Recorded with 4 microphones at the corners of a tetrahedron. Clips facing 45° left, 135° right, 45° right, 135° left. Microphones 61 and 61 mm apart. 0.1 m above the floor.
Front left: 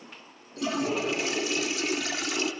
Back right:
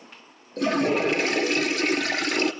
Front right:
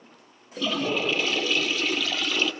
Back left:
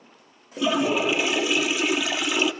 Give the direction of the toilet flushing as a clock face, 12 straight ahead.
5 o'clock.